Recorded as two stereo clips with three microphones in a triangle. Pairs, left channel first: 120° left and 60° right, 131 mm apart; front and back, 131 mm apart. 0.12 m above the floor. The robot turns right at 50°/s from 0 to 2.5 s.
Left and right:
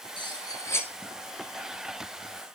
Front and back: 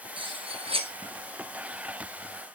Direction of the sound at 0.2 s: 155° left.